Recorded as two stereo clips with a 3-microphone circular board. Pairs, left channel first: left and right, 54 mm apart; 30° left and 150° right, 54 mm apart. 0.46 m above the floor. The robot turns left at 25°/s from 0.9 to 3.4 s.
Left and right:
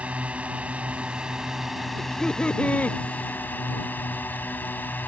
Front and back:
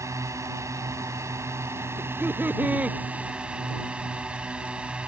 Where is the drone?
155° right; by 5.1 s 140° left.